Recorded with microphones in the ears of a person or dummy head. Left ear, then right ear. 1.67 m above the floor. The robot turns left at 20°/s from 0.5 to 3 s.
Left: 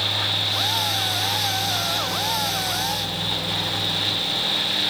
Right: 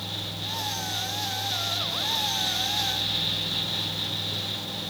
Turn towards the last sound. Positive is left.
No sound to turn to.